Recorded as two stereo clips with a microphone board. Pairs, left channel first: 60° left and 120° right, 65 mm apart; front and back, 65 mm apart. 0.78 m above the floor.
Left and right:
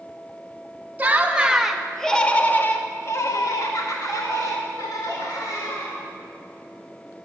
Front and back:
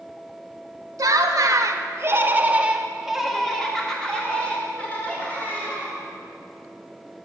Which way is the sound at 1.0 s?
Straight behind.